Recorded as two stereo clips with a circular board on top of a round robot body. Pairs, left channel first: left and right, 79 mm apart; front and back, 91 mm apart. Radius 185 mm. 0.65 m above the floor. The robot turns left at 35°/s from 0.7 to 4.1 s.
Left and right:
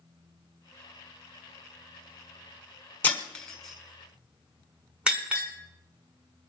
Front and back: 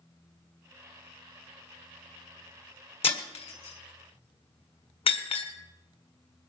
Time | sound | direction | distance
3.0 | breaking glass | 25° left | 1.2 m